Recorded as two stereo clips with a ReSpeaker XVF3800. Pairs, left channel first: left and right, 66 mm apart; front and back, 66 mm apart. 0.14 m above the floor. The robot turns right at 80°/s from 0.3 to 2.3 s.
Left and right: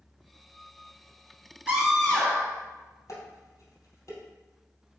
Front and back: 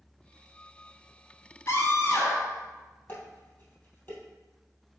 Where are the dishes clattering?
55° left, 2.5 m.